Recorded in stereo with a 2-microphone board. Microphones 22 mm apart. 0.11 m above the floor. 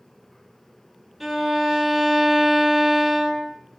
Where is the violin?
5° right (ahead or behind), 1.6 m.